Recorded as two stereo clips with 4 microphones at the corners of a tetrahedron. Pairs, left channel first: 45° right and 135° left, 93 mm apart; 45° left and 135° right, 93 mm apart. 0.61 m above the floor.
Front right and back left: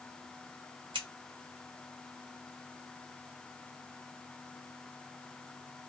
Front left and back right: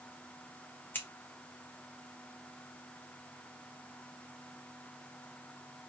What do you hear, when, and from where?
0.9 s scissors: 115° left, 1.5 m